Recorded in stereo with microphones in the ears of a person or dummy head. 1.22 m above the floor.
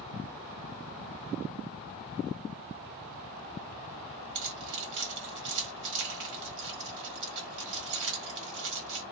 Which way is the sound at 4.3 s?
65° right (ahead or behind).